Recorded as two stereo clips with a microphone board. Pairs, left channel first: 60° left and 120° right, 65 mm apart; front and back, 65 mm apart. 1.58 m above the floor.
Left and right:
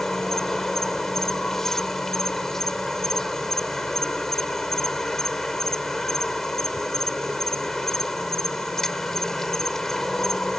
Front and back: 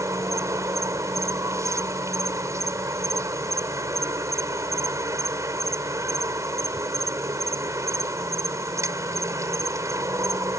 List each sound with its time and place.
0.0 s an insect: 145° left